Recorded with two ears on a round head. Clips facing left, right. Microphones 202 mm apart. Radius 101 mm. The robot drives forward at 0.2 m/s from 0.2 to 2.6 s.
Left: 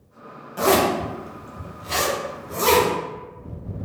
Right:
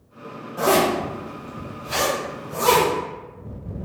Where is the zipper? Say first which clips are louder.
Even; 40° left (ahead or behind), 0.9 m; by 2.9 s 35° left (ahead or behind), 1.0 m.